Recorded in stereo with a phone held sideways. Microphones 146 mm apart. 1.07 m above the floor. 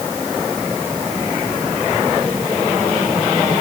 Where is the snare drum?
I don't hear a snare drum.